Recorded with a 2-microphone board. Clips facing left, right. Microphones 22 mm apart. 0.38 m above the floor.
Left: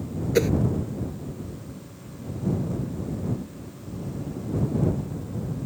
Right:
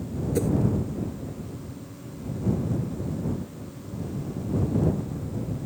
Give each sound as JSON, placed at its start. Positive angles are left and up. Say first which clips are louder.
{"t": 0.3, "sound": "a whoosh", "louder": "left 5 dB", "side_deg": 60}